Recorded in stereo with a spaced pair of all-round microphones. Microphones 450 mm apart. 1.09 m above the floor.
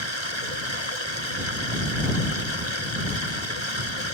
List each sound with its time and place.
0.0 s running water: 80° left